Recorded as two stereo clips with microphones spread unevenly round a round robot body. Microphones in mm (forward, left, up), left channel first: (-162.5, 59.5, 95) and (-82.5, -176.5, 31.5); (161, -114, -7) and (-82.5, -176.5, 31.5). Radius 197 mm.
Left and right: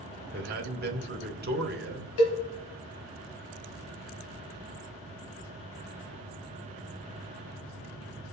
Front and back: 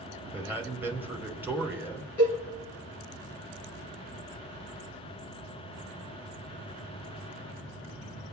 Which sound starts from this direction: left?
A cowbell, at 2.2 s.